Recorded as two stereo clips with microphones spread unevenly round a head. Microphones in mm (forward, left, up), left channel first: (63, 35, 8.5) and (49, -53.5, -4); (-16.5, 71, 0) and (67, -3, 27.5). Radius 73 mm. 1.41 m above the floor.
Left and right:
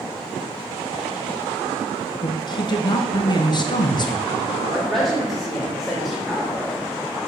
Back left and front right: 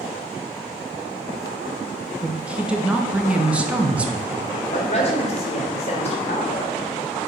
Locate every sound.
2.2 s a woman speaking: 40° left, 1.2 m
4.7 s a woman speaking: 175° left, 1.4 m